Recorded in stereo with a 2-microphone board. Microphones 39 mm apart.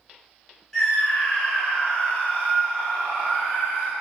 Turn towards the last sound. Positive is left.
turn(degrees=55)  # may be behind; listen again after turning